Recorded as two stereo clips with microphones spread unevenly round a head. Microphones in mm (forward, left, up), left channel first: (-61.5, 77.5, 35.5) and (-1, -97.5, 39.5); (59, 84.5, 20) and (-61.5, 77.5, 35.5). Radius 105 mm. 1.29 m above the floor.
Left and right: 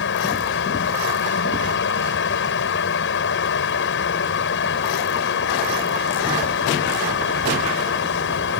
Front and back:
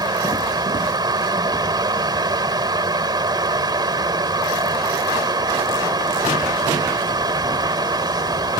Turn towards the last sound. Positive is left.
turn(degrees=130)